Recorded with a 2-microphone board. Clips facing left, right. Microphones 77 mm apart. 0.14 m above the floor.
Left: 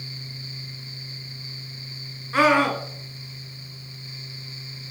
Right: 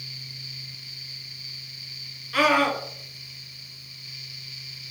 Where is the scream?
30° left (ahead or behind), 2 m.